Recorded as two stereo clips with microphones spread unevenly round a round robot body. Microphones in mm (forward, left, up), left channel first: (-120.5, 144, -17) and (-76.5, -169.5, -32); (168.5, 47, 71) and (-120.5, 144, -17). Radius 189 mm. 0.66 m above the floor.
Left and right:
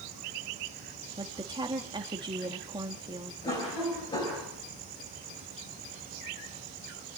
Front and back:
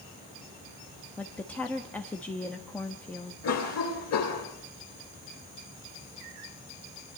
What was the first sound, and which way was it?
A woman speaking, 135° right.